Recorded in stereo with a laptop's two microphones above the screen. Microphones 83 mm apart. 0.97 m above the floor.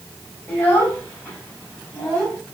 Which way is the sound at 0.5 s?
20° left (ahead or behind).